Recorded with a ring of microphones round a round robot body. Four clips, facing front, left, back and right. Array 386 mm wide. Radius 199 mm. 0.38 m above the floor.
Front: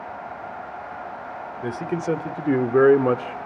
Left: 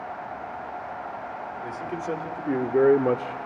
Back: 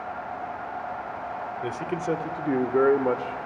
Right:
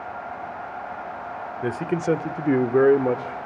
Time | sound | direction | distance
1.6 | a man speaking | 75° right | 1.3 m